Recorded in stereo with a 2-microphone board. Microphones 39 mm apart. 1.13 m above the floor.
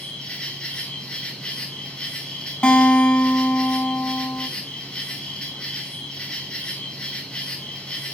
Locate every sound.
0.0 s an insect: 25° left (ahead or behind), 4 m
2.6 s a guitar: 30° left (ahead or behind), 2.5 m